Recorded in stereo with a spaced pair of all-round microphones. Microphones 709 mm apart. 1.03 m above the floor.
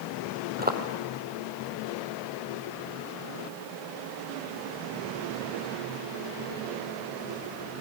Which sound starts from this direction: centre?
Footsteps, at 0.6 s.